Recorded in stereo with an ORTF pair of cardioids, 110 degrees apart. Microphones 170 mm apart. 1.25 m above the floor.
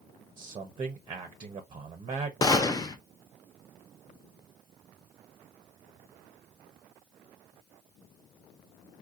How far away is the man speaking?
About 0.7 m.